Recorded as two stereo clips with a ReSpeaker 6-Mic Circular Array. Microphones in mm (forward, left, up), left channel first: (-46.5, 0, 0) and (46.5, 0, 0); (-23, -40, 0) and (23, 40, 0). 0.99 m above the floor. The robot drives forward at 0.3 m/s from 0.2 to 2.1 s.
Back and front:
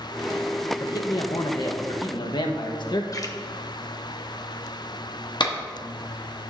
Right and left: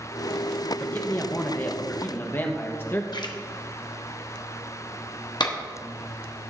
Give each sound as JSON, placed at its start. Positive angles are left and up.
{"t": 0.8, "sound": "a man speaking", "azimuth_deg": 180, "distance_m": 1.0}
{"t": 3.1, "sound": "a splash", "azimuth_deg": -140, "distance_m": 0.9}
{"t": 5.4, "sound": "a clap", "azimuth_deg": -150, "distance_m": 1.3}